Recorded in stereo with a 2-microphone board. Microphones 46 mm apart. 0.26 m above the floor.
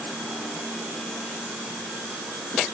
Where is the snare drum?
No snare drum in this recording.